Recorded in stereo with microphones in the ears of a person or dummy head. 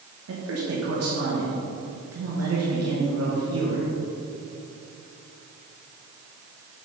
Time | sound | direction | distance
0.3 | a man speaking | 75° right (ahead or behind) | 1.6 m